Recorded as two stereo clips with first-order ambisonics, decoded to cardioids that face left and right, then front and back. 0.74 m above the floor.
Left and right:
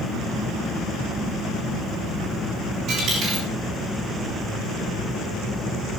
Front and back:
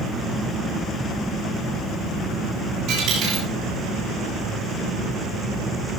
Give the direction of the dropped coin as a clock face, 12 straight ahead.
5 o'clock.